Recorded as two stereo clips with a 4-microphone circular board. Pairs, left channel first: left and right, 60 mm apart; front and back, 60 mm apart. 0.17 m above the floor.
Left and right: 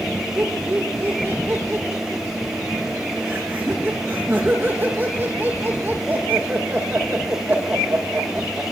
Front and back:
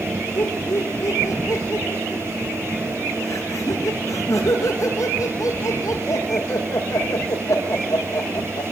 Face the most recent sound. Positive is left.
turn(degrees=-30)